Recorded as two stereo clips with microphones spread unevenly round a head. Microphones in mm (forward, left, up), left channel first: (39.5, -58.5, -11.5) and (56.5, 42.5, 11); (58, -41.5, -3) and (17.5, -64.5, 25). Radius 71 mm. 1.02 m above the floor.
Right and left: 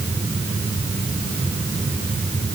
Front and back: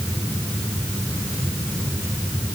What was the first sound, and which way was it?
Only background noise.